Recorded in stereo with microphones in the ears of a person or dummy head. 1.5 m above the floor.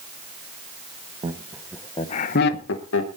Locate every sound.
1.2 s laughter: 25° right (ahead or behind), 1.2 m; by 3.1 s 75° left (ahead or behind), 1.6 m